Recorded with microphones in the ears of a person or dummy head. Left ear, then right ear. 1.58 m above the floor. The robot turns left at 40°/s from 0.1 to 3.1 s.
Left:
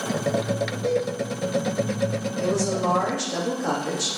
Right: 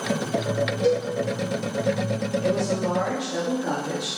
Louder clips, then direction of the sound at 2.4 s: Left 3 dB; 80° left.